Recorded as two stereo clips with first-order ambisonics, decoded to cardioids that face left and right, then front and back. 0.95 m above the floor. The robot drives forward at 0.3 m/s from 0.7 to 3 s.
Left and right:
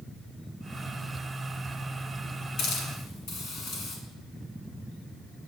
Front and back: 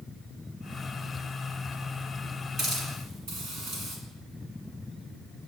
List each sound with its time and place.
2.6 s a hiss: 120° left, 1.6 m; by 4.0 s 125° left, 1.6 m